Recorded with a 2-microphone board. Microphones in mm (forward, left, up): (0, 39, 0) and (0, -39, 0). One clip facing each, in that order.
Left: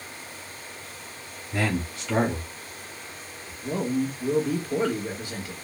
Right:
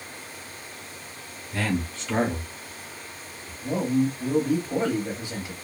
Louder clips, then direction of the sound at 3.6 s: Right 3 dB; 20° right (ahead or behind).